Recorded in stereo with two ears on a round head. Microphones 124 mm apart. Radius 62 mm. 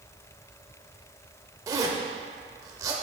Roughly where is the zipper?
Right.